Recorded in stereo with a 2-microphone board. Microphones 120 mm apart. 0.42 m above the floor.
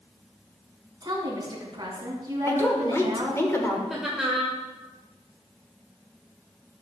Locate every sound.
1.0 s a woman speaking: 35° right (ahead or behind), 3 m
2.5 s a woman speaking: 25° left (ahead or behind), 1.6 m
3.9 s laughter: 5° right (ahead or behind), 1.3 m